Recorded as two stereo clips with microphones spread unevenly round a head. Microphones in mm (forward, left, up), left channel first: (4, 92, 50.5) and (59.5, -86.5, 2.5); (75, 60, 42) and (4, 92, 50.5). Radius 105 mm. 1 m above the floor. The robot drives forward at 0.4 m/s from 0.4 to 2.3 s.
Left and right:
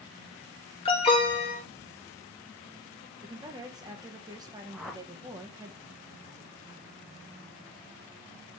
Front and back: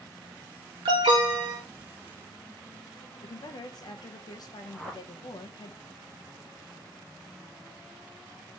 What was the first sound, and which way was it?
An alarm, 165° left.